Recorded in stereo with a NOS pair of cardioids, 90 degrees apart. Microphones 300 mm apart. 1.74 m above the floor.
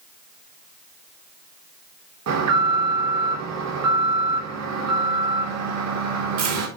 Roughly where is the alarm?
Ahead right.